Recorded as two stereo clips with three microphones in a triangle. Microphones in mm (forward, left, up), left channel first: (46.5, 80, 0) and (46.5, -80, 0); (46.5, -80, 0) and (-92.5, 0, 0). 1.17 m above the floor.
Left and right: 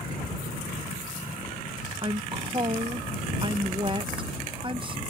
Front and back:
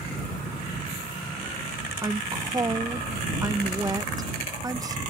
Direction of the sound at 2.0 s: 145° right.